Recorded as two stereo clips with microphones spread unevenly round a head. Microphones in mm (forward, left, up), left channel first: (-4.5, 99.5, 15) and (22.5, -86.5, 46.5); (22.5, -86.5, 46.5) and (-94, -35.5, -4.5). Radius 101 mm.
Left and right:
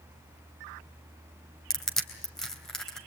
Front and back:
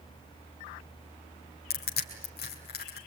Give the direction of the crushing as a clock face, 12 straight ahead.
12 o'clock.